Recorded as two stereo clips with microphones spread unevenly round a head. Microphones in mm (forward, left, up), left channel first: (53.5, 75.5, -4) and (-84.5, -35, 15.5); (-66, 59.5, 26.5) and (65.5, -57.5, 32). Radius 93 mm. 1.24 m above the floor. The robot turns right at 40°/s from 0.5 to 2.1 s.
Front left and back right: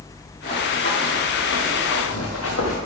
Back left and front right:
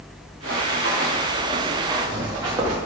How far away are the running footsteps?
About 4 m.